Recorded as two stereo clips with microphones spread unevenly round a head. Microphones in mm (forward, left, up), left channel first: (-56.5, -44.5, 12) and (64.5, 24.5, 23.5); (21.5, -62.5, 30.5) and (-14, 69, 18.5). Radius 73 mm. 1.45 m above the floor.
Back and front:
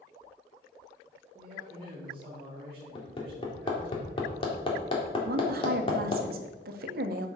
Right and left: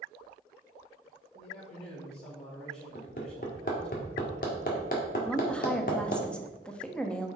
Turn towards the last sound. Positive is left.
turn(degrees=5)